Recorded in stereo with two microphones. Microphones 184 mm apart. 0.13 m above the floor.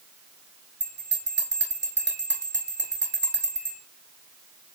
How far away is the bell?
About 3 m.